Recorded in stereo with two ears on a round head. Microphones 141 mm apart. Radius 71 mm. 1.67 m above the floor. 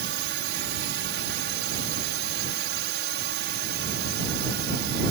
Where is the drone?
75° right (ahead or behind).